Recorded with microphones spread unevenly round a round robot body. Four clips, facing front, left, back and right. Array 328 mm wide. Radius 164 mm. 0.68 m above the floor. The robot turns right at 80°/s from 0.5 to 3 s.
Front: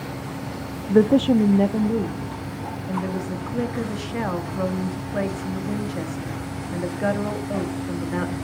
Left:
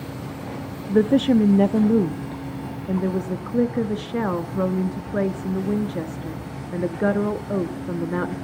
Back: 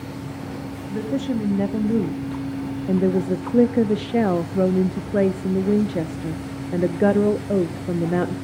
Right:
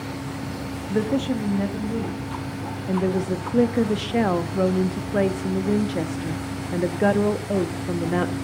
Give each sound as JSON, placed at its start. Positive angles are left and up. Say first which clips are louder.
{"t": 0.9, "sound": "a woman speaking", "louder": "left 6 dB, front 9 dB", "azimuth_deg": 15, "distance_m": 0.7}